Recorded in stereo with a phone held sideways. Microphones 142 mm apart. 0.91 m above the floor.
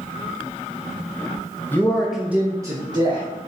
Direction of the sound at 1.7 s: 15° left (ahead or behind).